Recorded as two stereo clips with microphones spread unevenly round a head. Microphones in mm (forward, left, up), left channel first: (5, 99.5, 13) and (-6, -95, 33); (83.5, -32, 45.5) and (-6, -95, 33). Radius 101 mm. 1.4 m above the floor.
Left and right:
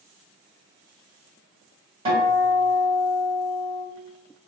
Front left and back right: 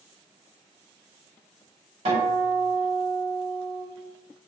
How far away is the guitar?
About 1.7 m.